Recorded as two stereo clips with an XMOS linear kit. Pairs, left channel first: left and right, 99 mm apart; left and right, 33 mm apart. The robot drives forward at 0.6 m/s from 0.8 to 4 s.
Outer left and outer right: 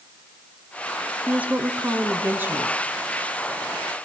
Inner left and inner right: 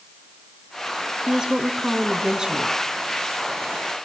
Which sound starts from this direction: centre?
A woman speaking, at 1.3 s.